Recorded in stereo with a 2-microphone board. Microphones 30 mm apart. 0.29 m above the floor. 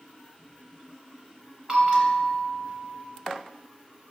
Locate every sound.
1.7 s a bell: 25° right (ahead or behind), 1.1 m